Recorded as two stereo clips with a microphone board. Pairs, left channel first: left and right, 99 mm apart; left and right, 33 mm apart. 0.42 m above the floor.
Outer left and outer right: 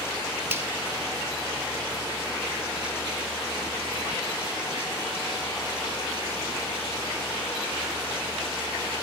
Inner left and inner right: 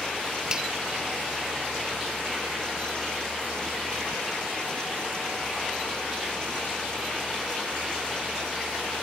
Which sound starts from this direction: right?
A finger snap, at 0.5 s.